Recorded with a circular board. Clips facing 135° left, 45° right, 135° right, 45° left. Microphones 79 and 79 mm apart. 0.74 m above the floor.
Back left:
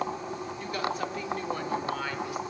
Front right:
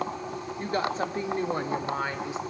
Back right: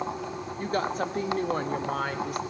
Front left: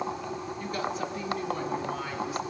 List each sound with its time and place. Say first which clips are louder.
0.6 s a woman speaking: front right 4 dB, back right 5 dB; 95° right, 1.8 m; by 2.4 s 110° right, 3 m